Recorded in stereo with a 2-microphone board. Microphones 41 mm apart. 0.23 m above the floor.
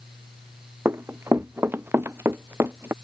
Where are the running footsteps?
80° right; by 2.9 s 70° right (ahead or behind).